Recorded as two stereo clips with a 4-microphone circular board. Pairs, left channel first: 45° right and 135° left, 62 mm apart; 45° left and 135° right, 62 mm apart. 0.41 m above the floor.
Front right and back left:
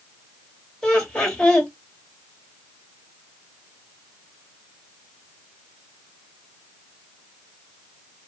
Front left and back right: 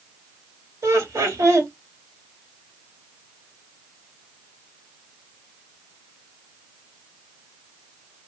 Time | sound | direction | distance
0.8 | laughter | 120° right | 1.5 m